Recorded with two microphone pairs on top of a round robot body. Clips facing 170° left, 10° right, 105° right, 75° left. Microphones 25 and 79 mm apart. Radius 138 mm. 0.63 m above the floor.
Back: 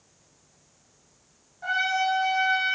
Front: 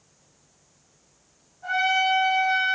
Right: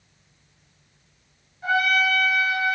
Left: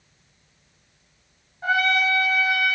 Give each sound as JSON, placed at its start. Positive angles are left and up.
{"t": 1.6, "sound": "a trumpet", "azimuth_deg": 125, "distance_m": 2.5}